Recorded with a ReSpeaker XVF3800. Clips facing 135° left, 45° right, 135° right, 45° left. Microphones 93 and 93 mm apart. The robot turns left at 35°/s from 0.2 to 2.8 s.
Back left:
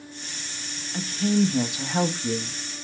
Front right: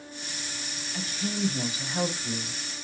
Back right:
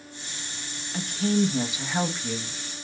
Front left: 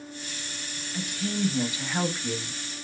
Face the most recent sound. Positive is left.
turn(degrees=115)